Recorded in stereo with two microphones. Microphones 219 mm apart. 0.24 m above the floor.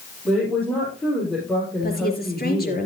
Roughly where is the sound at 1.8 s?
Left.